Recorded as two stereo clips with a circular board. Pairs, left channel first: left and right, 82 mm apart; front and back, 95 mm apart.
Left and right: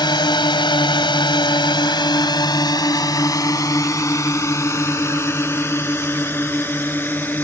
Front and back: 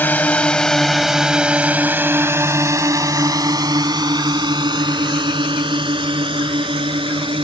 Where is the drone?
70° left; by 7.5 s 155° left.